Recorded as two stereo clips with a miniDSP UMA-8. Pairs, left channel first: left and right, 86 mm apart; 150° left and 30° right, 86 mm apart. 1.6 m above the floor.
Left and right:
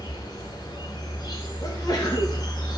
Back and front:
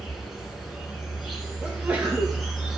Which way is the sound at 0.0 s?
55° left.